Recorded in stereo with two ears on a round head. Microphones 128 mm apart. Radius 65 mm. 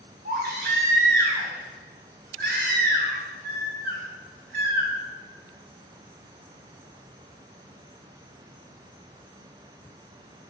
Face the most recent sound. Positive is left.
turn(degrees=-70)  # may be behind; listen again after turning